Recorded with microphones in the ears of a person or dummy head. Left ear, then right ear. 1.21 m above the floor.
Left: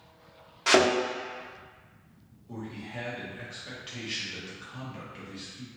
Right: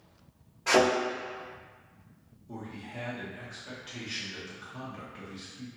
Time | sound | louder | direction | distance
0.7 | a thud | left 2 dB | 60° left (ahead or behind) | 1.2 m
2.5 | a man speaking | left 2 dB | 20° left (ahead or behind) | 1.0 m